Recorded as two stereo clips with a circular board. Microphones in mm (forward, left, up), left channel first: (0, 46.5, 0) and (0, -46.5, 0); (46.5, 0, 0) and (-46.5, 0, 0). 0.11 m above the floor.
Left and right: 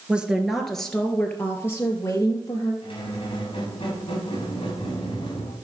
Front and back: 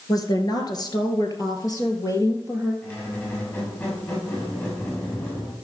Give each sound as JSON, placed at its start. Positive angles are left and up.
{"t": 0.1, "sound": "a woman speaking", "azimuth_deg": -15, "distance_m": 1.5}
{"t": 2.8, "sound": "a squeak", "azimuth_deg": 65, "distance_m": 5.0}